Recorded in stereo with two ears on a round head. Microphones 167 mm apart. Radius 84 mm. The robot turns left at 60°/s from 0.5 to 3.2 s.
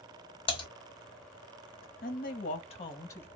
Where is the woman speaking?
85° left, 0.8 m; by 3.3 s 15° left, 0.8 m.